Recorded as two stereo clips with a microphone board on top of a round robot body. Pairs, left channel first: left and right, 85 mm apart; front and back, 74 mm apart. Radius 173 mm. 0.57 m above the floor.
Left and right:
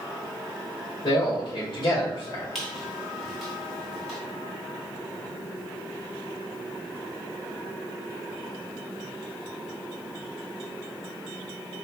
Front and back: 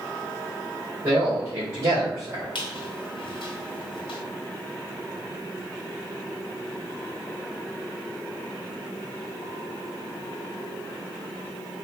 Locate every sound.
1.0 s a man speaking: 130° left, 2.5 m
2.5 s a squeak: straight ahead, 0.9 m